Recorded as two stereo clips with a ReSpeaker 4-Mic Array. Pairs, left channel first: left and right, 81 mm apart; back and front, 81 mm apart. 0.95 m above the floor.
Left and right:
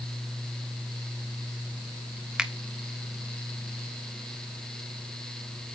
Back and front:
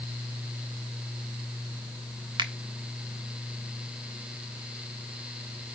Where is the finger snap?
10° right, 1.3 m.